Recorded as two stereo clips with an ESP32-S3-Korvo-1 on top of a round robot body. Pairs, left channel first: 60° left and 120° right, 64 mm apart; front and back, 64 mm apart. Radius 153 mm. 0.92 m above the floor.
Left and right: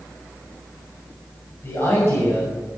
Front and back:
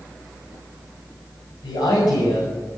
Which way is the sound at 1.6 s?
Straight ahead.